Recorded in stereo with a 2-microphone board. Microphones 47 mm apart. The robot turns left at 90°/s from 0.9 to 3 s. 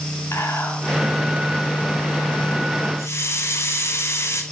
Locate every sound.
0.3 s whispering: 70° left (ahead or behind), 5 m; by 2.9 s 70° right (ahead or behind), 5 m
3.0 s a hiss: 65° left (ahead or behind), 2 m; by 4.4 s 70° left (ahead or behind), 2 m